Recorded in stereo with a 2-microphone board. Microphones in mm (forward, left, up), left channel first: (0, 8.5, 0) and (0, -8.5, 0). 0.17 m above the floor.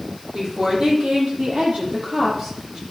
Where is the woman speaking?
80° right, 5.5 m; by 2.8 s 65° right (ahead or behind), 2.5 m.